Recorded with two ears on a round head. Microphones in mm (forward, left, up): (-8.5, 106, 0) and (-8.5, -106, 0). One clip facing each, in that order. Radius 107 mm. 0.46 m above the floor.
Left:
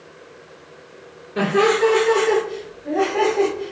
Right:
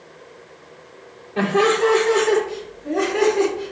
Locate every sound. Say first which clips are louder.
1.4 s laughter: left 1 dB; 15° left (ahead or behind), 1.1 m; by 3.7 s 30° right (ahead or behind), 1.4 m